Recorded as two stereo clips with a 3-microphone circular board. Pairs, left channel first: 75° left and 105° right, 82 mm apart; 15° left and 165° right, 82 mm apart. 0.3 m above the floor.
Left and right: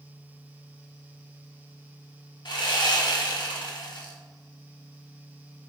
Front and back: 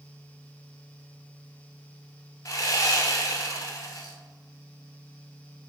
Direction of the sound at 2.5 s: 60° left.